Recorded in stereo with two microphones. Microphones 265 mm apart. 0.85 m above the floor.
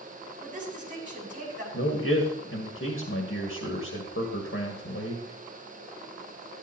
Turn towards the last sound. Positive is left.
turn(degrees=60)  # may be behind; listen again after turning